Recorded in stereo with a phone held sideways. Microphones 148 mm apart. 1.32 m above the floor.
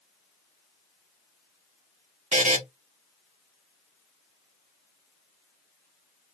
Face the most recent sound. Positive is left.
turn(degrees=-60)  # may be behind; listen again after turning